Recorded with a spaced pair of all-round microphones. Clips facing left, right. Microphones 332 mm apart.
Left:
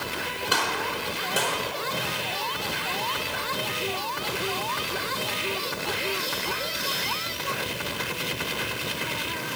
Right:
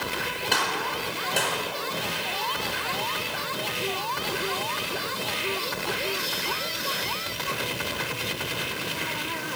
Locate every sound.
0.5 s a gunshot: 10° left (ahead or behind), 5 m